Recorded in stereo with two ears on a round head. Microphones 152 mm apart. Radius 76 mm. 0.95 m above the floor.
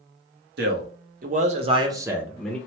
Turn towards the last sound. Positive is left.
turn(degrees=5)  # may be behind; listen again after turning